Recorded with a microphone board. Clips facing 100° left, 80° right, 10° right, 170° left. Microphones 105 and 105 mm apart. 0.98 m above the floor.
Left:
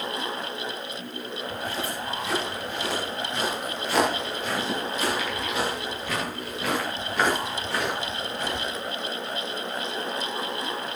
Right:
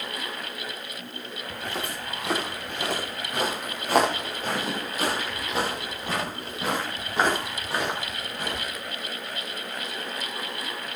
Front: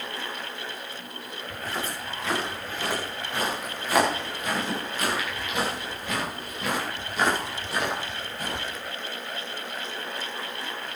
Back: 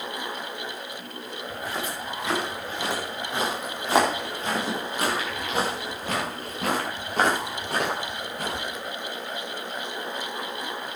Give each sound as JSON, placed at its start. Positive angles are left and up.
{"t": 1.5, "sound": "footsteps", "azimuth_deg": -110, "distance_m": 8.0}